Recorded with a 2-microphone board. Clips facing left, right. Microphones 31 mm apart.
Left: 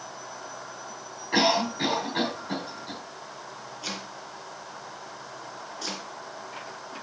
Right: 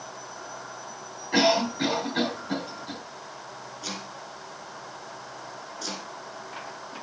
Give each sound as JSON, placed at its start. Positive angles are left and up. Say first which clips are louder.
{"t": 1.3, "sound": "a cough", "louder": "right 1 dB", "side_deg": 15, "distance_m": 4.0}
{"t": 3.8, "sound": "chopping", "louder": "left 1 dB", "side_deg": 10, "distance_m": 2.5}